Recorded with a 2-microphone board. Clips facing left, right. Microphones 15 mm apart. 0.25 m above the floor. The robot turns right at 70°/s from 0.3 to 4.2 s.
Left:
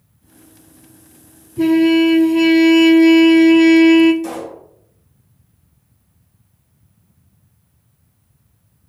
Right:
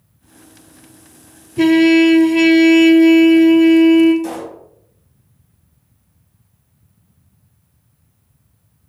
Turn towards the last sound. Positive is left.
turn(degrees=-10)  # may be behind; listen again after turning